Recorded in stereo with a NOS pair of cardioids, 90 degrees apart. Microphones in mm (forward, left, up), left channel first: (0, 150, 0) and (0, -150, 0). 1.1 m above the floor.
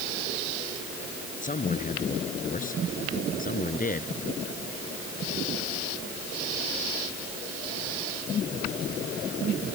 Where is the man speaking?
25° left; by 4.1 s 30° left.